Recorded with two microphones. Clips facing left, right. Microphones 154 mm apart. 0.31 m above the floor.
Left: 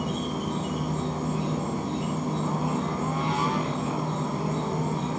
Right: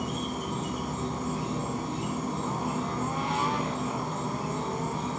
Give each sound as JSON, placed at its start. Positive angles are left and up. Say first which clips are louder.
{"t": 0.0, "sound": "an insect", "louder": "left 3 dB", "side_deg": 60, "distance_m": 5.5}